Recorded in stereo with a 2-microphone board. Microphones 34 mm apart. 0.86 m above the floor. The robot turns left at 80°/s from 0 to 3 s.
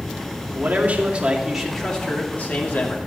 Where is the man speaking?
90° right, 2.5 m; by 3.0 s 75° left, 2.5 m.